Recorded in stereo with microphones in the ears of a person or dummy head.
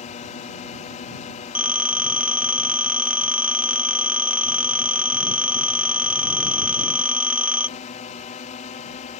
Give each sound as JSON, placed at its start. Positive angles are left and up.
{"t": 0.0, "sound": "a drone", "side_deg": 35}
{"t": 1.6, "sound": "a phone ringing", "side_deg": -5}